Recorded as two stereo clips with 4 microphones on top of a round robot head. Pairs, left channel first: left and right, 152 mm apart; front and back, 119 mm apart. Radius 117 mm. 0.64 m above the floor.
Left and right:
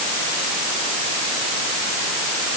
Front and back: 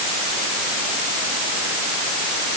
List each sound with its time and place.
Only background noise.